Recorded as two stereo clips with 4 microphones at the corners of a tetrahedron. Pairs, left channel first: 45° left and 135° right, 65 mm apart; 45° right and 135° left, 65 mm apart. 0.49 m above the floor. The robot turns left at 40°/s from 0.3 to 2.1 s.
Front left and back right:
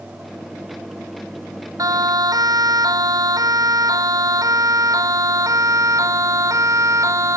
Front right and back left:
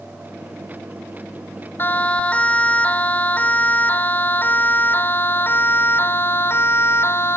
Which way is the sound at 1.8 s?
100° right.